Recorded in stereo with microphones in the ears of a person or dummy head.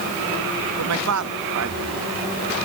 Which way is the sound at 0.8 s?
80° right.